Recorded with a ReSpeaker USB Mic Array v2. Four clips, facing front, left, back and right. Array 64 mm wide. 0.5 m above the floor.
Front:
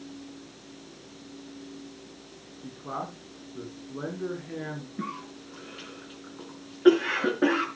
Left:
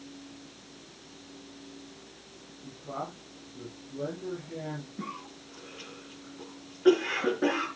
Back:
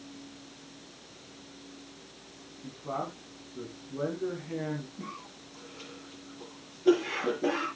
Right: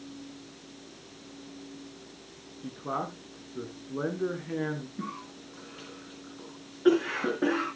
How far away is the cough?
About 5 m.